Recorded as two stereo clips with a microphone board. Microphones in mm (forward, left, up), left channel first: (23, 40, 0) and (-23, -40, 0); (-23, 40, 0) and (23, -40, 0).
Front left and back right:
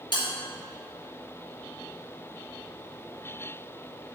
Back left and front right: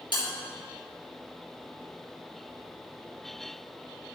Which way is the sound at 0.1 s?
90° left.